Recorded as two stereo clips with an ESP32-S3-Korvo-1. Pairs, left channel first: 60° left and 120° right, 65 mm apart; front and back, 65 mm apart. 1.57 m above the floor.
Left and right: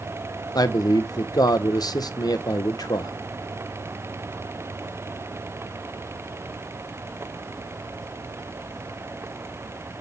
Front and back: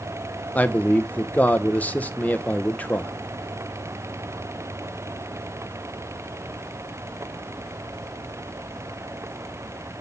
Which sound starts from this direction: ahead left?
A man speaking, at 0.6 s.